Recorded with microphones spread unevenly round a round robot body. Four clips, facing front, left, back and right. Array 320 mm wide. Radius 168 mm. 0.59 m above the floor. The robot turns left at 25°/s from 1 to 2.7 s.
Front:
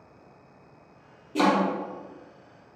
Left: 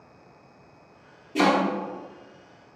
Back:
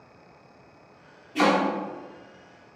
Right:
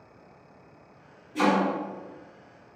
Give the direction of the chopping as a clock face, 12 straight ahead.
10 o'clock.